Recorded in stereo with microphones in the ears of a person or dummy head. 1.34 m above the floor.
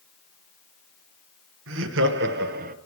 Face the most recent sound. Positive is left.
turn(degrees=-40)  # may be behind; listen again after turning